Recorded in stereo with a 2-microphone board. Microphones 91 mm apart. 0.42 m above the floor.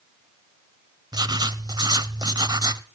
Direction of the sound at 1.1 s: 50° right (ahead or behind).